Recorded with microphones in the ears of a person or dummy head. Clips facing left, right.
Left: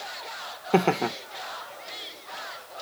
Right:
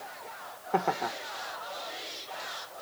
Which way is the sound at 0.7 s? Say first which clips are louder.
Left 7 dB; 50° left (ahead or behind).